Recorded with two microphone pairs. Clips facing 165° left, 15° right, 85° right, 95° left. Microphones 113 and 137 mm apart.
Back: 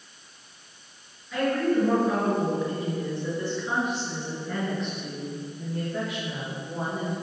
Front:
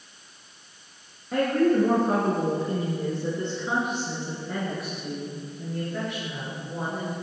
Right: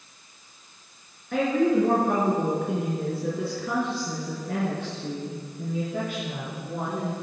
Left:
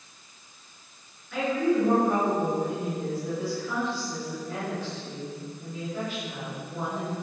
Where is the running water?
I don't hear running water.